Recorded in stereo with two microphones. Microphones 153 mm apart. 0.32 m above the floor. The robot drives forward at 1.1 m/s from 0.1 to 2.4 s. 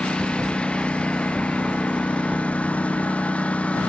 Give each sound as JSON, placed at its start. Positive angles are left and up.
{"t": 0.0, "sound": "a lawn mower", "side_deg": 5}